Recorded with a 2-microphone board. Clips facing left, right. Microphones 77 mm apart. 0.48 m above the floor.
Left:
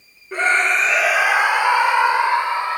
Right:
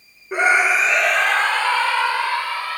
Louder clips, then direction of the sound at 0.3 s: Right 1 dB; 15° right (ahead or behind).